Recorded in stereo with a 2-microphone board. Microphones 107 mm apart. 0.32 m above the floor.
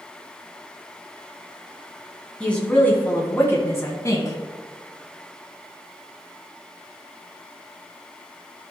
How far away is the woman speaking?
About 2.5 m.